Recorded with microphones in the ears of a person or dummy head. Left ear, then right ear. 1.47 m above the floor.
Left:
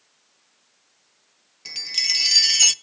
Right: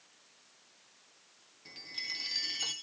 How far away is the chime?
About 0.7 m.